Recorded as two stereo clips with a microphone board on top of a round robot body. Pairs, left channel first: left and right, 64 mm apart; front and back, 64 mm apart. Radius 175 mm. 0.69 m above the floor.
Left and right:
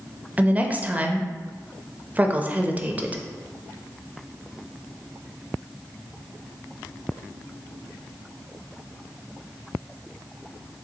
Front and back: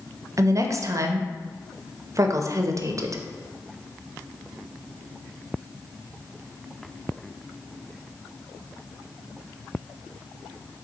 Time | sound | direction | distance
0.4 | a woman speaking | 150° right | 0.7 m